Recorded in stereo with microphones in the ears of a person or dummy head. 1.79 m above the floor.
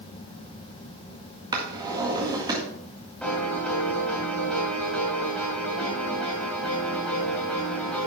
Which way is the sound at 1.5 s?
20° right (ahead or behind).